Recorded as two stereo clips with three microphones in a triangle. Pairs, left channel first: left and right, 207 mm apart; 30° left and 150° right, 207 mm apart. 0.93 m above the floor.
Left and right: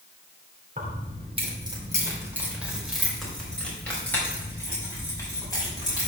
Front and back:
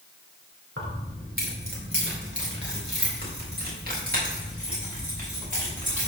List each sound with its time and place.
0.8 s keys jangling: 140° right, 2.5 m; by 6.1 s 160° left, 6 m